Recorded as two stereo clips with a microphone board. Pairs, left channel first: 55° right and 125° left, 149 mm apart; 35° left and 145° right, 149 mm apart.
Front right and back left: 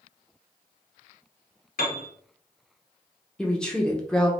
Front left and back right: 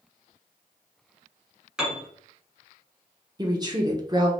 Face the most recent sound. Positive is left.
turn(degrees=-135)